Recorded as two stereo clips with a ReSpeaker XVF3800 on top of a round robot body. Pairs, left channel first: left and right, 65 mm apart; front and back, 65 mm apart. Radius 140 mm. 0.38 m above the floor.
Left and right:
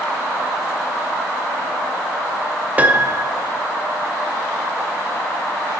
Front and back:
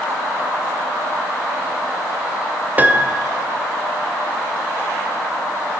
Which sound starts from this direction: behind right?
A piano, at 2.8 s.